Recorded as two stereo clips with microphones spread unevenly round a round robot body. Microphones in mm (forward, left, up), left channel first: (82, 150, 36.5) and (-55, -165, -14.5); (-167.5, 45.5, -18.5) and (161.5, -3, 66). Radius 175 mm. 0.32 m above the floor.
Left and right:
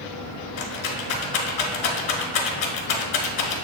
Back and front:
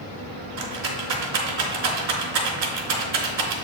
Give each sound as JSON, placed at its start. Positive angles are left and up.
{"t": 0.6, "sound": "a rattle", "azimuth_deg": 30, "distance_m": 0.8}